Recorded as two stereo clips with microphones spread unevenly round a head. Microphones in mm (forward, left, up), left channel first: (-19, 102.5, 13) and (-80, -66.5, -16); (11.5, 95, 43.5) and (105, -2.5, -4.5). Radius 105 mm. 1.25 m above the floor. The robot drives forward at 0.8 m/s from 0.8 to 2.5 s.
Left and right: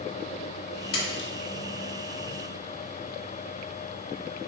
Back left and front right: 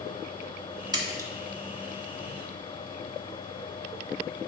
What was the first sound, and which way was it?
A splash, 20° left.